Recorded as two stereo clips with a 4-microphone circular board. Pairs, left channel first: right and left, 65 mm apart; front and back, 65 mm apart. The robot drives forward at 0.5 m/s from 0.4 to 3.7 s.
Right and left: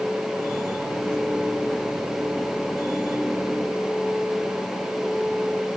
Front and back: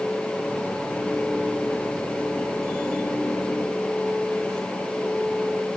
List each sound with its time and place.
Only background noise.